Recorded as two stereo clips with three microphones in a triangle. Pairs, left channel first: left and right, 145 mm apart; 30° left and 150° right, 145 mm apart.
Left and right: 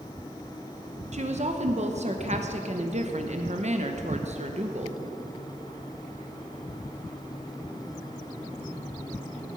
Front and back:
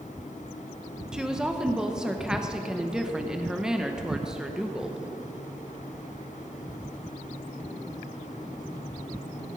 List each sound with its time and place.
1.1 s a woman speaking: 65° right, 0.9 m